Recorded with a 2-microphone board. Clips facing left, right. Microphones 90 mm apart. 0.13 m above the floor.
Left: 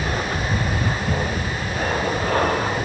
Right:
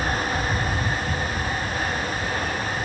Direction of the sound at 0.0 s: 60° left (ahead or behind).